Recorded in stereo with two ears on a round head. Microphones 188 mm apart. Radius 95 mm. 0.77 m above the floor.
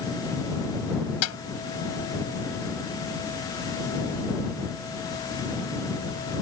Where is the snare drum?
80° left.